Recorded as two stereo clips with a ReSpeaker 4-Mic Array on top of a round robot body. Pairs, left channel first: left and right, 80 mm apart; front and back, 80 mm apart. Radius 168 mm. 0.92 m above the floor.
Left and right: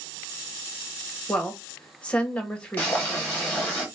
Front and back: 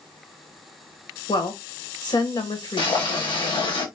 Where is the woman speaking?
15° left, 1.3 m.